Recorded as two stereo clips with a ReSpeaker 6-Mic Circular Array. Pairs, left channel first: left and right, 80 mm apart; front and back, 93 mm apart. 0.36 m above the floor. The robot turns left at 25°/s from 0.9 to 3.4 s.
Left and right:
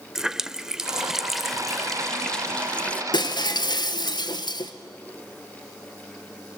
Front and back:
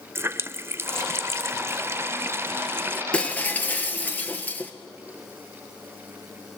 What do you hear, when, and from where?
0.1 s a running tap: 160° right, 0.5 m; by 3.0 s 145° left, 0.5 m
3.1 s breaking glass: 80° left, 1.4 m; by 4.7 s 70° left, 1.4 m